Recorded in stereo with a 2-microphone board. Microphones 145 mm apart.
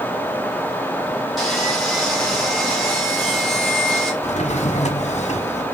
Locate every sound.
1.4 s sawing: centre (ahead or behind), 3 m
4.2 s a drawer: 50° left (ahead or behind), 0.9 m